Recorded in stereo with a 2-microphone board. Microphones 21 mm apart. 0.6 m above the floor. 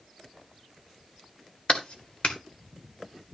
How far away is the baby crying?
I don't hear a baby crying.